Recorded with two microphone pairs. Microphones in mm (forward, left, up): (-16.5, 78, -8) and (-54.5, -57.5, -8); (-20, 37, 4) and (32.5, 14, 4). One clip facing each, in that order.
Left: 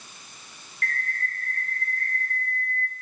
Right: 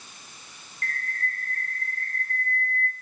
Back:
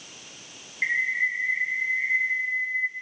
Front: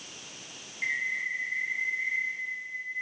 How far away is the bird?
About 1.2 m.